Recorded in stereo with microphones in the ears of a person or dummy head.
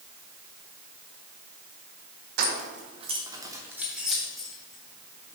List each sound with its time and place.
2.4 s keys jangling: 55° right (ahead or behind), 0.8 m; by 5.4 s 10° left (ahead or behind), 1.7 m